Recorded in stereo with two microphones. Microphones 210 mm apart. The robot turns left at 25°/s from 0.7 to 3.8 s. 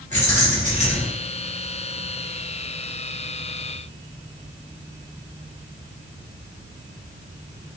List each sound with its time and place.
0.1 s keys jangling: 35° right (ahead or behind), 1.0 m; by 1.1 s 45° right (ahead or behind), 1.0 m